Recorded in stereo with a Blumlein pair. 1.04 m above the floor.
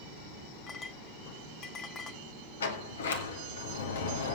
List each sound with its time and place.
0.7 s a clink: 25° left, 1.3 m
2.6 s a sliding door: 65° left, 2 m